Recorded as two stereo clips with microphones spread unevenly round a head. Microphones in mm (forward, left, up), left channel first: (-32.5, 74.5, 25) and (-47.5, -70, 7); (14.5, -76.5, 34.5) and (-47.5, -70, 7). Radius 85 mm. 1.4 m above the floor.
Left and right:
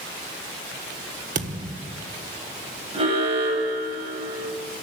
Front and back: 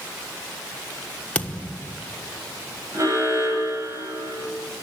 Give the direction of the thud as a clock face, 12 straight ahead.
2 o'clock.